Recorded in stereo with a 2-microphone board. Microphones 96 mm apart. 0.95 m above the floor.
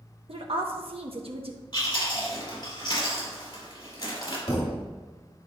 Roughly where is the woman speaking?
Right.